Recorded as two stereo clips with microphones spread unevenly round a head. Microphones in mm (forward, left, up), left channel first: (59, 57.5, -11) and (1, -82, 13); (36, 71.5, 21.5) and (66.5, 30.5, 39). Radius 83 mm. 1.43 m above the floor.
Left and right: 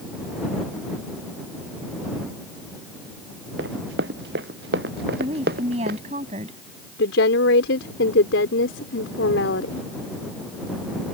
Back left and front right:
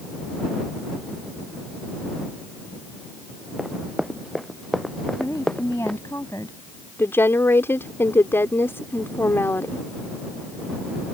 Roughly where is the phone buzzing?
No phone buzzing in this recording.